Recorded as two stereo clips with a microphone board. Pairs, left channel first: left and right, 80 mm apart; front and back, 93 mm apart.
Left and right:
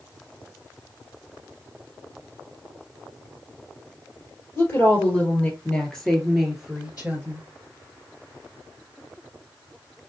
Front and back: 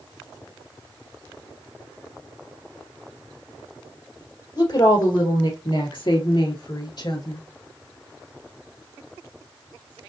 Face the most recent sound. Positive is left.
turn(degrees=-25)